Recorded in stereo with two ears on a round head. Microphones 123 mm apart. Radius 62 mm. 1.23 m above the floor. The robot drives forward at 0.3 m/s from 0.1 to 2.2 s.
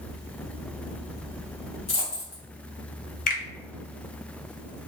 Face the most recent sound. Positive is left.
turn(degrees=65)  # may be behind; listen again after turning